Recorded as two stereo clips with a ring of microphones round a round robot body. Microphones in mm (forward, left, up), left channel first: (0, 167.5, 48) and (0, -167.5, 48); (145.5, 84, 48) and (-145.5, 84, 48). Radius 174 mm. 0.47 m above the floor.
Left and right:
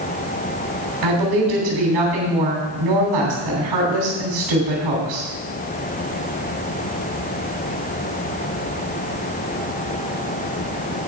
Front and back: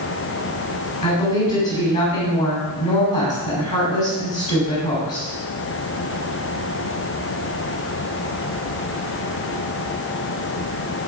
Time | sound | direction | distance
1.0 | a woman speaking | 65° right | 2.5 m